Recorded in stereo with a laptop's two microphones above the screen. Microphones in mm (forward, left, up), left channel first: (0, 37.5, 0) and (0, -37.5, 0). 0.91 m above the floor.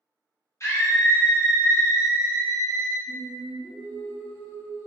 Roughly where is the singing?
Left.